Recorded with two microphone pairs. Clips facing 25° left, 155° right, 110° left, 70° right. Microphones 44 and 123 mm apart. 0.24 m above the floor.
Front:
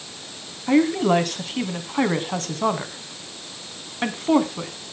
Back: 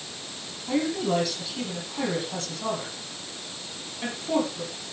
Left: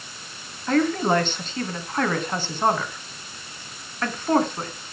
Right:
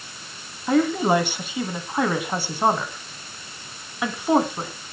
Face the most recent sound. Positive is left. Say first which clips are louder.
# front 7 dB, right 1 dB
turn(degrees=5)